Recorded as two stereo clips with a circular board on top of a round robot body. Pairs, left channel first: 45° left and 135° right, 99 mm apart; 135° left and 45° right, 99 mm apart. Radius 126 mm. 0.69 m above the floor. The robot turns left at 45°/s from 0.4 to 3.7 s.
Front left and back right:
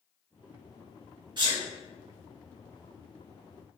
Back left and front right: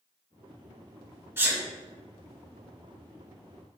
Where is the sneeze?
105° right, 1.4 m; by 1.6 s 115° right, 1.4 m.